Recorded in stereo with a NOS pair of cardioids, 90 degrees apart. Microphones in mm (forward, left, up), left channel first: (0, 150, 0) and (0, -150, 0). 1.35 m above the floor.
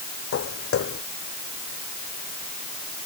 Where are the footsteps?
50° left.